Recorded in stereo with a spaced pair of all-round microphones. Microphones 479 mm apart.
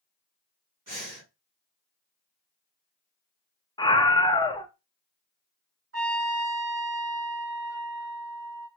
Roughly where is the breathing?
Right.